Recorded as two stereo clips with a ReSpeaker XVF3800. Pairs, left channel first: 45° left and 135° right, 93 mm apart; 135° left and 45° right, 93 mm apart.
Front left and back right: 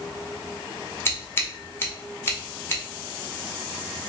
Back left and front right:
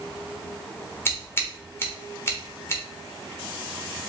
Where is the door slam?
I don't hear a door slam.